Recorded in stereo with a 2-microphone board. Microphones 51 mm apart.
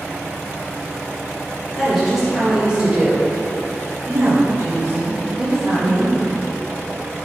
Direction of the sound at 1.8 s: Centre (ahead or behind).